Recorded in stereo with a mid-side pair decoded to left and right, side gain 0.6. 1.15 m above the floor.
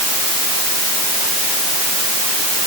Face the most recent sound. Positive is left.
No sound to turn to.